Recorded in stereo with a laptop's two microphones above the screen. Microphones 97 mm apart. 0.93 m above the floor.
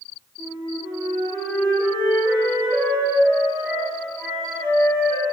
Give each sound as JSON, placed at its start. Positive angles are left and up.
{"t": 0.4, "sound": "a flute", "side_deg": -30, "distance_m": 1.1}